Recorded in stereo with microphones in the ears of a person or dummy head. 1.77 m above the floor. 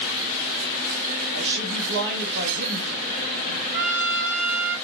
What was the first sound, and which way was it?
A woman speaking, 60° right (ahead or behind).